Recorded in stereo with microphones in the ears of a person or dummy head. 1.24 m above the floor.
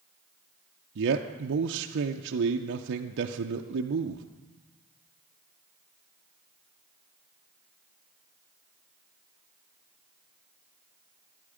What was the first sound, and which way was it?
A man speaking, 65° right (ahead or behind).